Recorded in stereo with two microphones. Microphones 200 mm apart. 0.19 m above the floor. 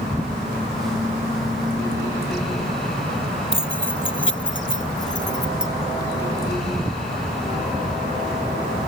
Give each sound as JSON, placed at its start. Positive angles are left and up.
{"t": 3.5, "sound": "keys jangling", "side_deg": 75}